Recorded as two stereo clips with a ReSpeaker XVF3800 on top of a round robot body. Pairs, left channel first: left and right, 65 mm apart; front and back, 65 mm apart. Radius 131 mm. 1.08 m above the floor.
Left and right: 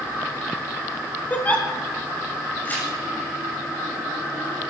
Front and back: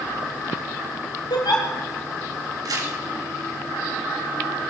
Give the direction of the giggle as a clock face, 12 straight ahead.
11 o'clock.